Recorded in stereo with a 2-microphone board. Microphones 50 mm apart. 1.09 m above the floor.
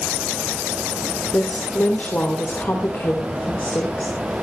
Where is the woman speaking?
45° left (ahead or behind), 3 m.